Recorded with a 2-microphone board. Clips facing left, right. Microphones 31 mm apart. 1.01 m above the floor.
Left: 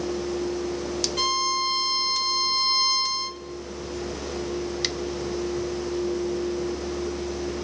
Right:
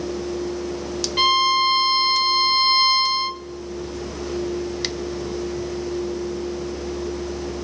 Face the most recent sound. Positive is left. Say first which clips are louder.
# right 9 dB
turn(degrees=-35)  # may be behind; listen again after turning